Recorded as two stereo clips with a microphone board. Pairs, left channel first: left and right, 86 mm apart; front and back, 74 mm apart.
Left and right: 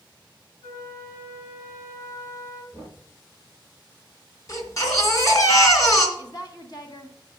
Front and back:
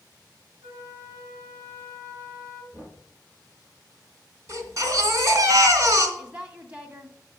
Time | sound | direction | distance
0.6 | a flute | 135° left | 3.5 m
2.7 | knocking | 50° left | 6 m
4.5 | a baby crying | 135° left | 2.5 m
6.2 | a woman speaking | 110° left | 1.7 m